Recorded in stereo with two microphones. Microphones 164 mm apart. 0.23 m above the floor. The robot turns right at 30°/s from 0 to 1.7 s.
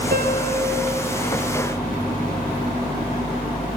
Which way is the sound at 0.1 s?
75° right (ahead or behind).